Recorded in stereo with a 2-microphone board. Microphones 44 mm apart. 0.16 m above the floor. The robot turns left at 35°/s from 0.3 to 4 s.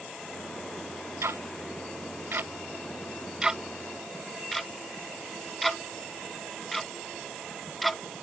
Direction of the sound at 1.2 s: 85° right.